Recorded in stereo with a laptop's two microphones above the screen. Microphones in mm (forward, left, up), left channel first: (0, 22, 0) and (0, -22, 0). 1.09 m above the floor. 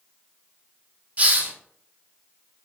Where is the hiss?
35° right (ahead or behind), 0.7 m.